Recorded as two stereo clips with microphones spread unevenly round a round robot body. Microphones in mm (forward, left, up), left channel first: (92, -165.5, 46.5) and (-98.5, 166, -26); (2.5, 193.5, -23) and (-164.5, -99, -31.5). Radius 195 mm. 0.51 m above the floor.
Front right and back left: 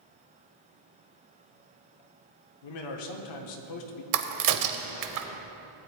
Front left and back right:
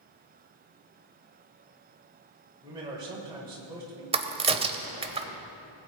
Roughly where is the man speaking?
Ahead right.